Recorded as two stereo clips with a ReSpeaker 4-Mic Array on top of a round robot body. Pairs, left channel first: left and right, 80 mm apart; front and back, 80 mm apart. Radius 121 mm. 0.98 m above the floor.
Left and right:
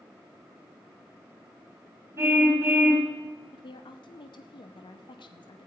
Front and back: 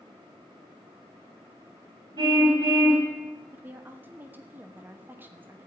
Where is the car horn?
150° right, 4.5 m.